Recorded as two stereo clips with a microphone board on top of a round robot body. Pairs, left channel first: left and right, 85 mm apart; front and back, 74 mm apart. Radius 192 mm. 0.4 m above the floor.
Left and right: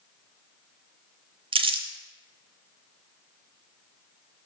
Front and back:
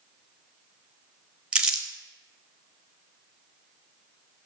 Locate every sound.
1.5 s crumpling: 100° right, 0.7 m